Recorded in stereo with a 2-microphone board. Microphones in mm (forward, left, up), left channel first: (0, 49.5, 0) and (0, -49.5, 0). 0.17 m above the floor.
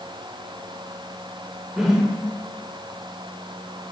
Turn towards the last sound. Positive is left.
turn(degrees=-5)  # may be behind; listen again after turning